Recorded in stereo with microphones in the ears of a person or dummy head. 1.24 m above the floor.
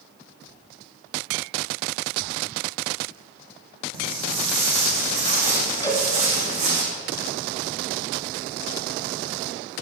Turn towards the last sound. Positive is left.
turn(degrees=15)  # may be behind; listen again after turning